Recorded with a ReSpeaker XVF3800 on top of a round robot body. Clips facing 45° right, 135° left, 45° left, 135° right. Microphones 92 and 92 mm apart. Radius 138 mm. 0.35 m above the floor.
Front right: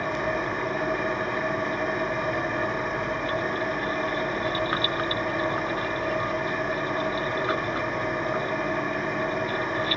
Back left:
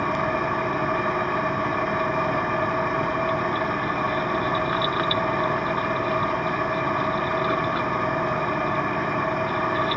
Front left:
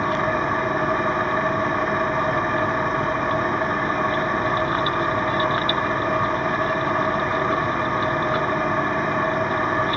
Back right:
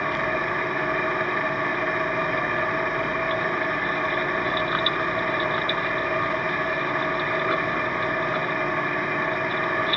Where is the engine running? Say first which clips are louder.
Back left 3 dB, front left 4 dB; 105° left, 3.5 m.